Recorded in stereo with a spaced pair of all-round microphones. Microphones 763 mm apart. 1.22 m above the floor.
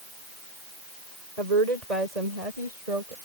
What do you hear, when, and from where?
1.4 s a woman speaking: 55° right (ahead or behind)